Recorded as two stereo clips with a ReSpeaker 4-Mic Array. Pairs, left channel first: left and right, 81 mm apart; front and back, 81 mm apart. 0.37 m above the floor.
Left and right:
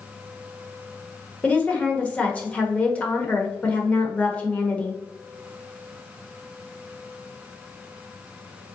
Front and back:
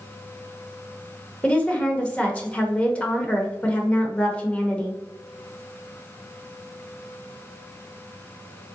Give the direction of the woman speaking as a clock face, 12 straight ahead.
10 o'clock.